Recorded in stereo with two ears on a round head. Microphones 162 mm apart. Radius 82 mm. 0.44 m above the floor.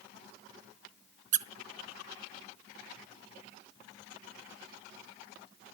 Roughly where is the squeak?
Right.